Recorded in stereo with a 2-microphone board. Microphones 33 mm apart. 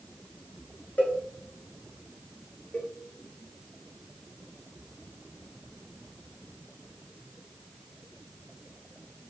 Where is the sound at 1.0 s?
55° left (ahead or behind), 2 m.